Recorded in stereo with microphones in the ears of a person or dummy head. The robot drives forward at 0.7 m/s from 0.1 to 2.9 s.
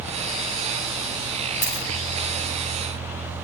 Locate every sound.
1.6 s a dropped coin: 15° right (ahead or behind), 3.5 m